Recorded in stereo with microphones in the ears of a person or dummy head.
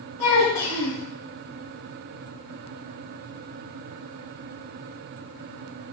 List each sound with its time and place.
0.2 s a child speaking: 15° left (ahead or behind), 1.6 m